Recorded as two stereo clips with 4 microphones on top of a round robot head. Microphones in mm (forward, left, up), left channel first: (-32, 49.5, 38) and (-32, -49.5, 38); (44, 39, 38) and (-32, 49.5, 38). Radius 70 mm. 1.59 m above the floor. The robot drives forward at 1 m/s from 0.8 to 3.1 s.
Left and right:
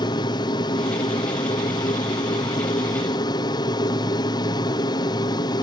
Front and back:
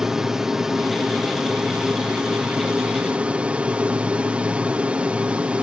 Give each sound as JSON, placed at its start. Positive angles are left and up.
{"t": 0.0, "sound": "an aircraft", "azimuth_deg": 90}